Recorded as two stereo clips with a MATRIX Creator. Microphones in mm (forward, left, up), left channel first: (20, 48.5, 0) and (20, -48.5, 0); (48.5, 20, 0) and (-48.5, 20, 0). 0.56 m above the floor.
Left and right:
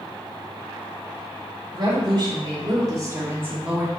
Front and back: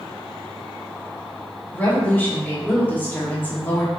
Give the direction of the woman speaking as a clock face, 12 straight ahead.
2 o'clock.